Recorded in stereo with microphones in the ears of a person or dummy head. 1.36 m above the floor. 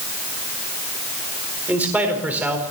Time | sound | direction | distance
1.7 | a man speaking | 10° right (ahead or behind) | 4 m